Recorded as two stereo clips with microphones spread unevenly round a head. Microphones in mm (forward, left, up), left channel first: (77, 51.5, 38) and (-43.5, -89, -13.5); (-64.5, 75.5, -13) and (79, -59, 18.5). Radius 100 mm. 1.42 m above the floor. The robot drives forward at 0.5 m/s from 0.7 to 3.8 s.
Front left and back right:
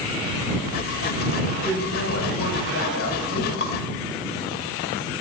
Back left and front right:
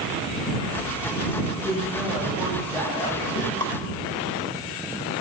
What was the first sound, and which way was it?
A woman speaking, 55° left.